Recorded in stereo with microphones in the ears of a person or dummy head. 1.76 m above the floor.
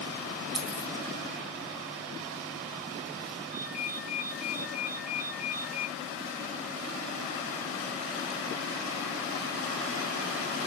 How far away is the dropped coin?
About 1.2 m.